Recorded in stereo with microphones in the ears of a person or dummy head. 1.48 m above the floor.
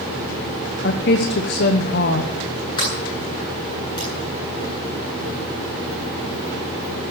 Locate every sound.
0.8 s a woman speaking: 50° left (ahead or behind), 1.1 m
2.8 s a sliding door: 20° left (ahead or behind), 9.5 m